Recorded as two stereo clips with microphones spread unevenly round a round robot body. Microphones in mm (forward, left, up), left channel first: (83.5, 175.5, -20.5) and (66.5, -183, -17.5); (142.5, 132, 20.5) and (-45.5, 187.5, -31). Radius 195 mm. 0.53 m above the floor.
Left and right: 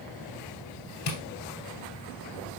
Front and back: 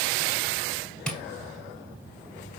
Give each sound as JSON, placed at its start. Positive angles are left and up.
{"t": 1.1, "sound": "tapping", "azimuth_deg": 70, "distance_m": 2.5}